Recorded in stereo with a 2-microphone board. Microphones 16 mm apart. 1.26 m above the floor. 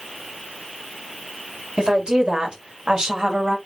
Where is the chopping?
No chopping in this recording.